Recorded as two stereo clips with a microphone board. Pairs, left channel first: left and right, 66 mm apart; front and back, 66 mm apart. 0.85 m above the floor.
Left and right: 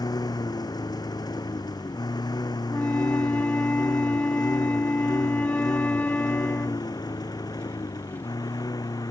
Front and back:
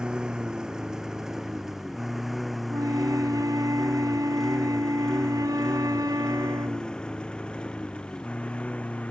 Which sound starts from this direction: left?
A lawn mower, at 0.0 s.